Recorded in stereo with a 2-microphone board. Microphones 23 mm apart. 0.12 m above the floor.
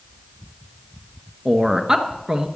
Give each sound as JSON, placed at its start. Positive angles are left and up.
{"t": 1.4, "sound": "a man speaking", "side_deg": -20, "distance_m": 1.6}